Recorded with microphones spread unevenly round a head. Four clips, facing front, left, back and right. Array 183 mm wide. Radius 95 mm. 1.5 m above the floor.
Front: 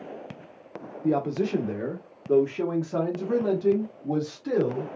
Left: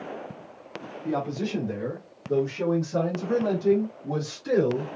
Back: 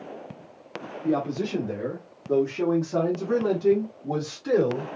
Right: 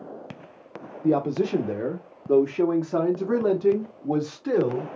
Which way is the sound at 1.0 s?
85° right.